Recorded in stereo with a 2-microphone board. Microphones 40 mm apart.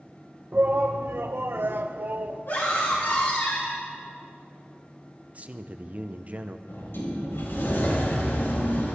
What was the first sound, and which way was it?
A shout, 50° right (ahead or behind).